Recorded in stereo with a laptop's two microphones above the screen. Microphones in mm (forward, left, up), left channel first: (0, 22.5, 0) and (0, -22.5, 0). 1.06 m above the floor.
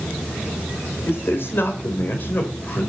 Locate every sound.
1.1 s a man speaking: 60° left (ahead or behind), 3.5 m; by 2.9 s 45° left (ahead or behind), 4 m